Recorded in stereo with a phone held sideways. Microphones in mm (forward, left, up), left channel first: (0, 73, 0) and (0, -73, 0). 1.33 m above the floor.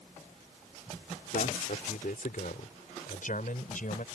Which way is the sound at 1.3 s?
75° left (ahead or behind).